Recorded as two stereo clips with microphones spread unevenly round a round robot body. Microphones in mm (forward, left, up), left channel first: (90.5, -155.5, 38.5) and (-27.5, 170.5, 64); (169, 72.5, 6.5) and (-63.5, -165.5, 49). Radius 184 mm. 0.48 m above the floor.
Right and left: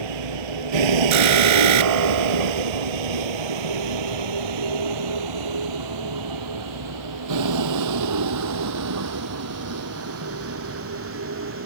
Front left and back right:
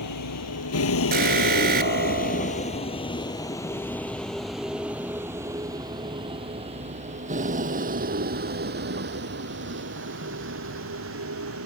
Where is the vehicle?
95° left; by 11.7 s 170° left.